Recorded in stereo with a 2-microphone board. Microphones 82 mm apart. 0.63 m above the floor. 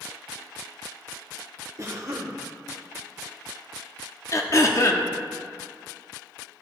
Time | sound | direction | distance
1.8 | a cough | 45° right (ahead or behind) | 1.3 m
4.3 | throat clearing | 40° left (ahead or behind) | 0.7 m